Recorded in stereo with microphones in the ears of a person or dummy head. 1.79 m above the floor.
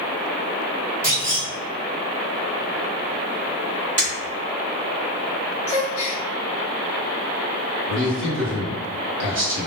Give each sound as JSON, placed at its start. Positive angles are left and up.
{"t": 1.0, "sound": "a clunk", "side_deg": -15, "distance_m": 1.0}
{"t": 4.0, "sound": "breaking glass", "side_deg": -30, "distance_m": 1.0}
{"t": 5.7, "sound": "a gasp", "side_deg": 35, "distance_m": 0.6}
{"t": 7.9, "sound": "a man speaking", "side_deg": -65, "distance_m": 1.4}